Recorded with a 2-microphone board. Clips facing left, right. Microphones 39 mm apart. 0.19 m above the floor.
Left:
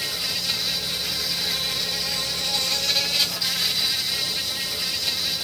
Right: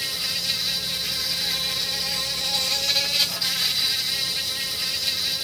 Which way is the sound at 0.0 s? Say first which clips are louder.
Even; 5° right (ahead or behind).